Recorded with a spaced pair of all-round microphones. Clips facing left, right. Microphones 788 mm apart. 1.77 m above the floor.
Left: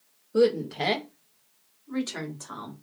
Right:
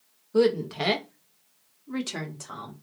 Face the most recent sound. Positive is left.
turn(degrees=-55)  # may be behind; listen again after turning